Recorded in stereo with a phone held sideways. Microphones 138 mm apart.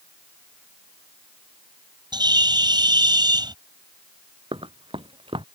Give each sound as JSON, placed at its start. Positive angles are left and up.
{"t": 2.1, "sound": "a bird", "side_deg": -30}
{"t": 4.5, "sound": "running footsteps", "side_deg": -40}